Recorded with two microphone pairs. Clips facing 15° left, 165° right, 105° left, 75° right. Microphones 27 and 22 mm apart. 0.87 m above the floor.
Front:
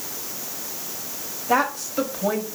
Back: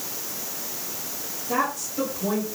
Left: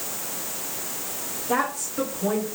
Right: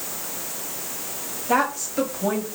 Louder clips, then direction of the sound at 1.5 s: Front 4 dB, right 4 dB; 15° right.